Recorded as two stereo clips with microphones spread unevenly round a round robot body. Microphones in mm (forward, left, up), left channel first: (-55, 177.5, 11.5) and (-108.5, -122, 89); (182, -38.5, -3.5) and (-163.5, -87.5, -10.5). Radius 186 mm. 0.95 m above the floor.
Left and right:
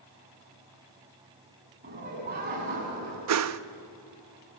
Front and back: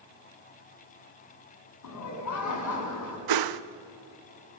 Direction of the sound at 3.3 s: 140° right.